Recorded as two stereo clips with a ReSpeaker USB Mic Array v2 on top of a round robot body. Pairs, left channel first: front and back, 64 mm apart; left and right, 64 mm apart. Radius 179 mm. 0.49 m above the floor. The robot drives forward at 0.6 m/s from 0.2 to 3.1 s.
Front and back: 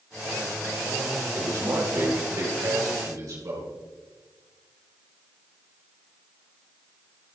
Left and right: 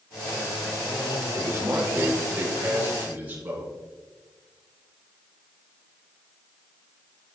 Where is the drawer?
I don't hear a drawer.